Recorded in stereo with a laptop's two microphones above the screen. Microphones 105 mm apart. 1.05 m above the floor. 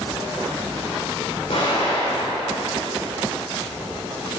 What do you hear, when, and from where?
1.5 s an explosion: 75° left (ahead or behind), 2.5 m